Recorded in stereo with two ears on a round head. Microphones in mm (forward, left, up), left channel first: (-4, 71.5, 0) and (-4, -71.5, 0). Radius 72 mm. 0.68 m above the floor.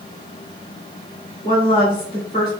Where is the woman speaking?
30° left (ahead or behind), 1.7 m.